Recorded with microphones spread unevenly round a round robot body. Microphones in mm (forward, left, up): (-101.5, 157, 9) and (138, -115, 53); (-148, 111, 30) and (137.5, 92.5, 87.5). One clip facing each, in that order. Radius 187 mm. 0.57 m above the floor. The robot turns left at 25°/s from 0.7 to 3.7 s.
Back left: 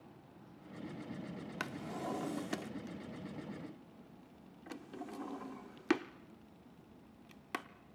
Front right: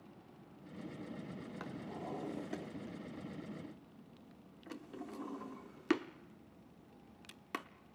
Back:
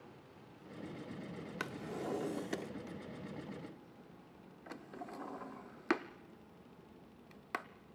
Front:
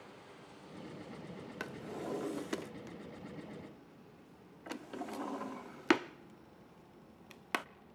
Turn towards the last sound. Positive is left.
turn(degrees=50)